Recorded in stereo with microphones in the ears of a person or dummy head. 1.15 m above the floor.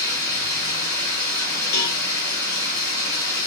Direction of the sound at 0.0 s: 40° right (ahead or behind).